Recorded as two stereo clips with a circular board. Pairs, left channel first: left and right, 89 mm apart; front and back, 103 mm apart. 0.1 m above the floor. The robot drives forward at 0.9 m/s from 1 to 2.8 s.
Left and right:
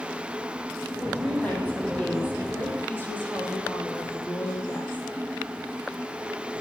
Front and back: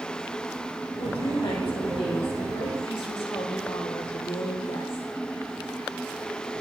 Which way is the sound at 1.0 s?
15° left.